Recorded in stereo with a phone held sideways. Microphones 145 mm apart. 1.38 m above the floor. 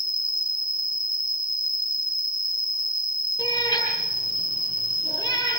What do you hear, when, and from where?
0.0 s an insect: 60° left (ahead or behind), 0.9 m
3.4 s a cat meowing: 25° left (ahead or behind), 9 m